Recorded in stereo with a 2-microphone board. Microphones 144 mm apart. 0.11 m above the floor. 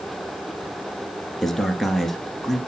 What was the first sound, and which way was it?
A man speaking, centre (ahead or behind).